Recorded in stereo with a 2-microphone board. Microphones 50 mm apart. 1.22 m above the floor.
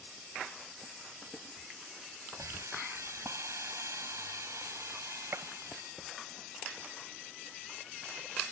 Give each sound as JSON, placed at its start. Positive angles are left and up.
{"t": 2.3, "sound": "a hiss", "side_deg": -80}
{"t": 5.3, "sound": "a gunshot", "side_deg": -65}